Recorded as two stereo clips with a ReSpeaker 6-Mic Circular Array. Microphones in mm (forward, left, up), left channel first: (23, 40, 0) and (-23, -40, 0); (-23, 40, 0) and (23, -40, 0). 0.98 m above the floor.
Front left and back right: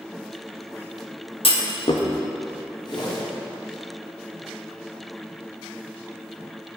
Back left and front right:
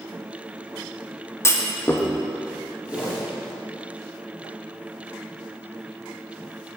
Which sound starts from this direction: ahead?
A whoosh, at 2.9 s.